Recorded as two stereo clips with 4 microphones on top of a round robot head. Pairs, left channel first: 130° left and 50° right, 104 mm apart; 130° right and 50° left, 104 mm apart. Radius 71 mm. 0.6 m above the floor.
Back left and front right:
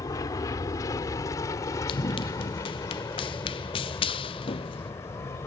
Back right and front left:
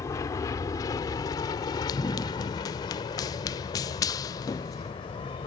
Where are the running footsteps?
175° left; by 4.9 s 170° left.